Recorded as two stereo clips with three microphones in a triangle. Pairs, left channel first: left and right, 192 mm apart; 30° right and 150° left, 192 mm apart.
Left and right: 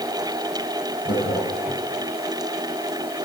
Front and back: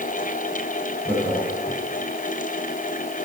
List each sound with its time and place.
1.1 s laughter: 50° left, 6.5 m